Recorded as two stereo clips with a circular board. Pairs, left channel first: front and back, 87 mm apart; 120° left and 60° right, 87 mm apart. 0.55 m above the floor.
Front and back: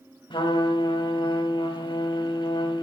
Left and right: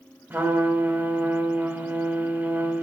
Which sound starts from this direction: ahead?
A trumpet, at 0.3 s.